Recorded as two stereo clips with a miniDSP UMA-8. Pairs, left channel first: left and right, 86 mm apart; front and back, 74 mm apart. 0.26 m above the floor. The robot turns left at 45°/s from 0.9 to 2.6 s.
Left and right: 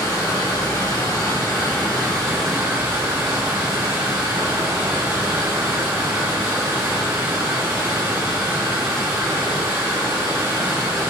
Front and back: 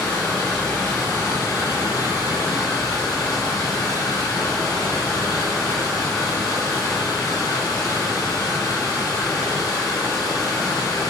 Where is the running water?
65° left, 1.5 m; by 11.1 s 15° right, 1.5 m.